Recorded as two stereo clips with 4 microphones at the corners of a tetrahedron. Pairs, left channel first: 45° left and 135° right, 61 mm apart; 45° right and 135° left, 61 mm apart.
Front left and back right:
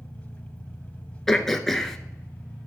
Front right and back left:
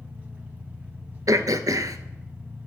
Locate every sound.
0.0 s an engine running: 95° left, 0.9 m
1.3 s throat clearing: 130° left, 0.6 m